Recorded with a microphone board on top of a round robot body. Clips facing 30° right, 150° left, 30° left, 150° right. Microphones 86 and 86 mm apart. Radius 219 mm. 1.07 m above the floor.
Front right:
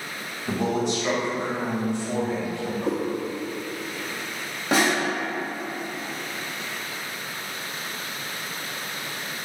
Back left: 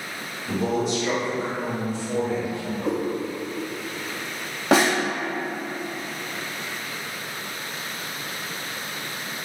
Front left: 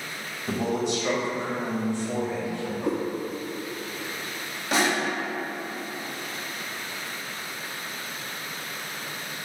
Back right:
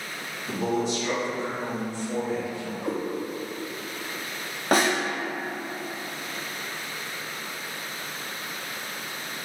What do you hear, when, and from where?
0.5 s a man speaking: 5° right, 2.0 m
2.8 s a cat meowing: 50° left, 0.9 m
4.7 s a snare drum: 160° left, 0.6 m